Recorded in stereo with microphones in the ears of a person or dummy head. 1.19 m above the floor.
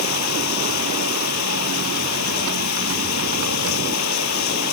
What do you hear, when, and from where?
0.0 s running water: 75° left (ahead or behind)